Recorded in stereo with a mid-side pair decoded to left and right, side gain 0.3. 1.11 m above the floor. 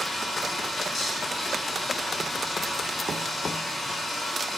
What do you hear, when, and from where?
0.0 s running water: 50° left, 8 m